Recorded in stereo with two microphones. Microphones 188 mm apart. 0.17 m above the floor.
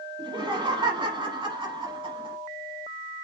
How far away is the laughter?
About 1.1 m.